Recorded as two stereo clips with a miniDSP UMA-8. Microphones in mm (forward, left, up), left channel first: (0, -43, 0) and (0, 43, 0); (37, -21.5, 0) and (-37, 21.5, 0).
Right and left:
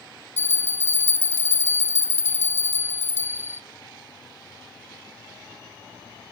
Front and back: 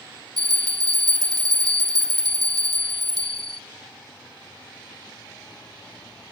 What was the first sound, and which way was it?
A bell, 145° left.